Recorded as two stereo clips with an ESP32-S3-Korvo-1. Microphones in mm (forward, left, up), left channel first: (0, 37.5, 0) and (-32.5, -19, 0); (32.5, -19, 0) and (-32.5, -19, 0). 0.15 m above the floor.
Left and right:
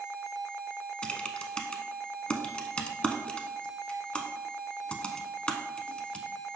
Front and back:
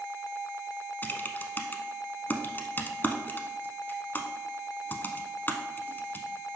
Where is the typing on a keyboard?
5° left, 0.6 m.